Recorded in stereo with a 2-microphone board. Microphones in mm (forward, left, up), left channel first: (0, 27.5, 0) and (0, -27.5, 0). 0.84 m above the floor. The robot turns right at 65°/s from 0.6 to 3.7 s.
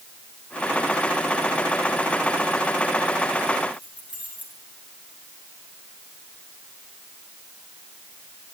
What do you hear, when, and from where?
3.7 s keys jangling: 25° right (ahead or behind), 6.5 m